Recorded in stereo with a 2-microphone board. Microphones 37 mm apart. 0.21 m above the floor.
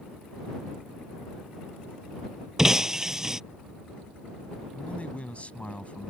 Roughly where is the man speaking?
Left.